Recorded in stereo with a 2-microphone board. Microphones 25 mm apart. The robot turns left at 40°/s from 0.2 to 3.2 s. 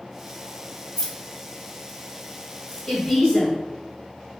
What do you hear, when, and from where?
1.0 s keys jangling: 5° left (ahead or behind), 0.6 m; by 2.9 s 20° left (ahead or behind), 0.6 m
2.9 s a woman speaking: 15° left (ahead or behind), 1.3 m; by 3.6 s 20° left (ahead or behind), 1.3 m